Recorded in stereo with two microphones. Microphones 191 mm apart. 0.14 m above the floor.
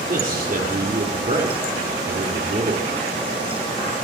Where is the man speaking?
50° right (ahead or behind), 4 m.